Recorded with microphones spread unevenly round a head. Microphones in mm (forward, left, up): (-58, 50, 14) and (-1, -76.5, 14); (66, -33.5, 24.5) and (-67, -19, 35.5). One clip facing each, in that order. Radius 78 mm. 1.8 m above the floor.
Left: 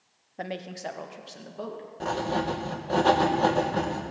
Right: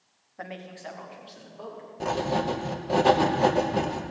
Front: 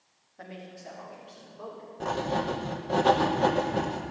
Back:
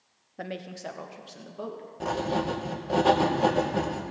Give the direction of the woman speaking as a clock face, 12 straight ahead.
6 o'clock.